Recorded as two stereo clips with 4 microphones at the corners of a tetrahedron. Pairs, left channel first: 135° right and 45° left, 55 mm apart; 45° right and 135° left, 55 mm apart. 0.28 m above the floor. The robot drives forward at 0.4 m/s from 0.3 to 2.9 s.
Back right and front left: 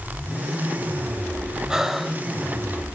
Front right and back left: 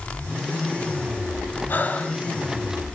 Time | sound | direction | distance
1.7 | breathing | 25° right | 0.7 m